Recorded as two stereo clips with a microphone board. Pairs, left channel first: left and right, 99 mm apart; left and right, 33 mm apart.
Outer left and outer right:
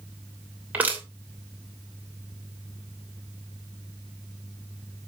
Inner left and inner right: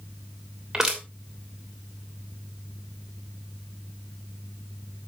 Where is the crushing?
15° right (ahead or behind), 3 m.